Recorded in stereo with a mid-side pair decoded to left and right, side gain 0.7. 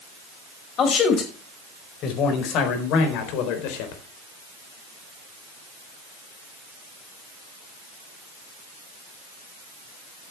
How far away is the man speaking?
About 5 m.